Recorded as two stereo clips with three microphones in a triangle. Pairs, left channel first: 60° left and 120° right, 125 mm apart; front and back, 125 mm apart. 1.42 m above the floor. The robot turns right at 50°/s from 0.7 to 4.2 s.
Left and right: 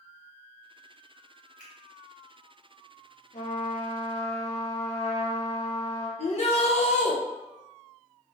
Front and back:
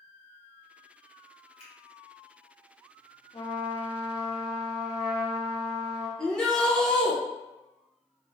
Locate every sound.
1.6 s a finger snap: 40° right, 1.1 m; by 1.7 s 35° right, 1.1 m
3.3 s a trumpet: 50° left, 0.7 m; by 6.1 s 95° left, 0.7 m
6.2 s a shout: 85° left, 0.7 m